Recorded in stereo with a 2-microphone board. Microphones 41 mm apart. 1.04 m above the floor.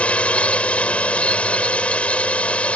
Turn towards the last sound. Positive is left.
turn(degrees=30)  # may be behind; listen again after turning